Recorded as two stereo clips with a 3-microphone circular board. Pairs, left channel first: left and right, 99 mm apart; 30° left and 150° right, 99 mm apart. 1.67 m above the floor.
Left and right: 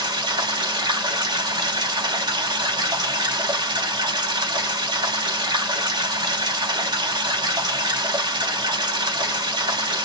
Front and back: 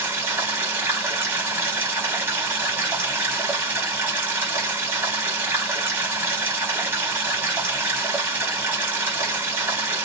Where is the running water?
95° right, 1.7 m.